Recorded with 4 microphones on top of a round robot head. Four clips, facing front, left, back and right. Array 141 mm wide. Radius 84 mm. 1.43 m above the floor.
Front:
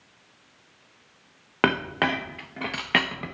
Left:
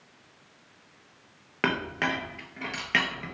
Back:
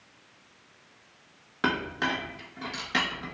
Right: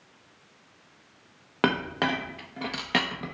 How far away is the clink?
About 0.8 m.